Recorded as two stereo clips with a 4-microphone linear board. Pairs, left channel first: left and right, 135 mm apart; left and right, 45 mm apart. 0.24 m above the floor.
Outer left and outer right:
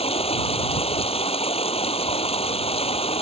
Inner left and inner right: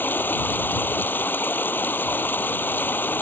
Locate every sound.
0.0 s running water: 50° left (ahead or behind)